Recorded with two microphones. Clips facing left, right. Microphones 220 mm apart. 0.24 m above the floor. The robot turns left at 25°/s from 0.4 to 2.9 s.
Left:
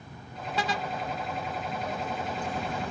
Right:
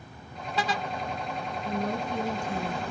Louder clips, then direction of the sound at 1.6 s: Right 4 dB; 60° right (ahead or behind).